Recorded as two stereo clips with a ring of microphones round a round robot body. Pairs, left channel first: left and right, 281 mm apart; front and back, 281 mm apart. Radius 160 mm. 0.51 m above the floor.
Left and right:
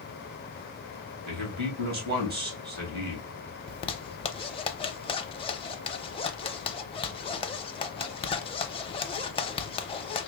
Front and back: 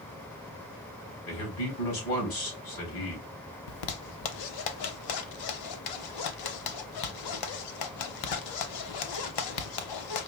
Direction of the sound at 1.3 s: 35° right.